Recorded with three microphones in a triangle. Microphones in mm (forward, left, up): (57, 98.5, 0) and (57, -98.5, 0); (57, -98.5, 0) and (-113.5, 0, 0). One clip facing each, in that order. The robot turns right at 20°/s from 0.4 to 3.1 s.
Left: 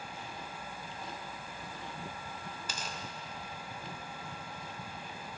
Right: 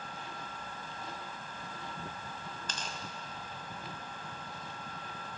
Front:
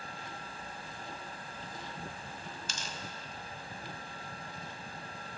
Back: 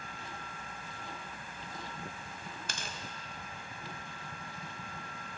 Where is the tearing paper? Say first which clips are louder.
Left 1 dB, even; 170° left, 0.8 m; by 3.0 s 175° left, 0.8 m.